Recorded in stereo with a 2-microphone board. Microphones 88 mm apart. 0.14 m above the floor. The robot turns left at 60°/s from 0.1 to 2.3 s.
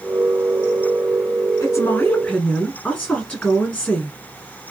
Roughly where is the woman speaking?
Ahead left.